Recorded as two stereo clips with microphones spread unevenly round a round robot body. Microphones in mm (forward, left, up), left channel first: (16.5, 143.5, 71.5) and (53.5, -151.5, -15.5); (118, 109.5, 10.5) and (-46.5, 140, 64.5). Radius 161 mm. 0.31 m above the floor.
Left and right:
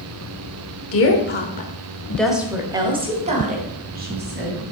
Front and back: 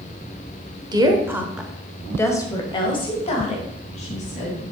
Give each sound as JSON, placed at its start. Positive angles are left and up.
{"t": 0.9, "sound": "a woman speaking", "azimuth_deg": 90, "distance_m": 1.2}